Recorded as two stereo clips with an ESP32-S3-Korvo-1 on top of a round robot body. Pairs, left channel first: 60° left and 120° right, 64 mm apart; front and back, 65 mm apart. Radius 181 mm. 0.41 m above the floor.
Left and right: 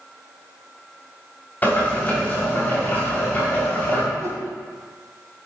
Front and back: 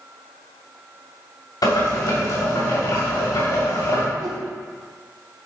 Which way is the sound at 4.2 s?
165° right.